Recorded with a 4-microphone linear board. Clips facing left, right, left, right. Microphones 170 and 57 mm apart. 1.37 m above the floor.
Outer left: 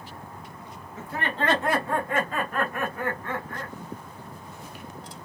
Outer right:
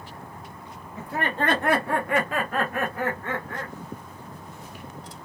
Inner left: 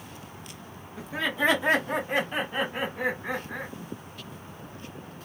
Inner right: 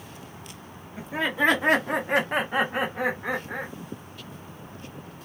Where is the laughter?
35° right (ahead or behind), 1.0 m; by 3.7 s 70° right (ahead or behind), 1.6 m.